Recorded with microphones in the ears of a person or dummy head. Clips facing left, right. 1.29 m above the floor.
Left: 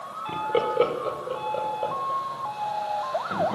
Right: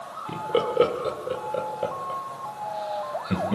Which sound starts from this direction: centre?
Laughter, at 0.3 s.